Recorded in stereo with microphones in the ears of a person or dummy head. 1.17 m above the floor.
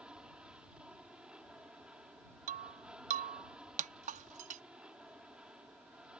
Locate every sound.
0.0 s an aircraft: 5° right (ahead or behind)
2.5 s breaking glass: 40° right (ahead or behind)